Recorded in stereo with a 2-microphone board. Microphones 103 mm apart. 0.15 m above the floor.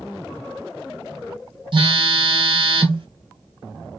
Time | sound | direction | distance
1.7 | a phone buzzing | 50° right (ahead or behind) | 1.2 m